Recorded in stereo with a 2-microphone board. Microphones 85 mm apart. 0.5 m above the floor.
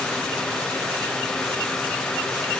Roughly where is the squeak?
I don't hear a squeak.